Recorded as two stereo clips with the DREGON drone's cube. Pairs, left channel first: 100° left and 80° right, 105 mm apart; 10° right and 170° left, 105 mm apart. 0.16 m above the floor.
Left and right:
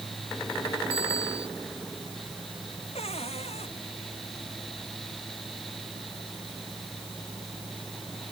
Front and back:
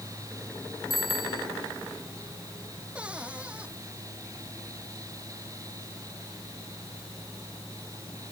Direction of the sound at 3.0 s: 90° left.